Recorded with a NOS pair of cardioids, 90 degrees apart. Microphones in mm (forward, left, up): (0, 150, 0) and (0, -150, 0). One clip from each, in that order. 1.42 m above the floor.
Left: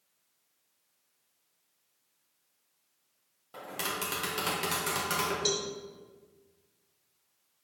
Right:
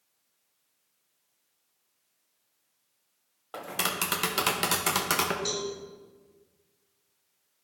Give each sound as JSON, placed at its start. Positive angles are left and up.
{"t": 3.5, "sound": "tapping", "azimuth_deg": -45, "distance_m": 1.3}
{"t": 5.5, "sound": "a cowbell", "azimuth_deg": 35, "distance_m": 2.0}